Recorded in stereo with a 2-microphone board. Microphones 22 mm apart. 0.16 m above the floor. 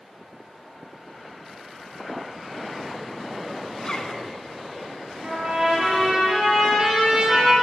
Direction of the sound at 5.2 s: 45° right (ahead or behind).